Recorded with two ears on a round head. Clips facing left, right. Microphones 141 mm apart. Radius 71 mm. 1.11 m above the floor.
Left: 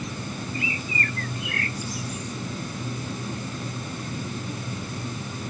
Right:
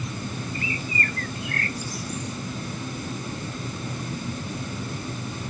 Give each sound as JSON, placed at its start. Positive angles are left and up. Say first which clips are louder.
{"t": 0.5, "sound": "a bird", "louder": "even", "side_deg": -35}